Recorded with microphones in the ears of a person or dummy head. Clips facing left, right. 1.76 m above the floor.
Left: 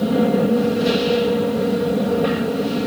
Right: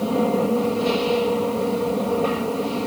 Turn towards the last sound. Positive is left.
turn(degrees=20)  # may be behind; listen again after turning